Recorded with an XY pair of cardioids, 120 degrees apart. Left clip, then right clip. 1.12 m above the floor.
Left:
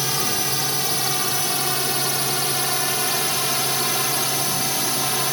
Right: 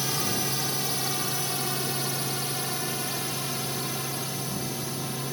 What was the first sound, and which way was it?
A drone, 30° left.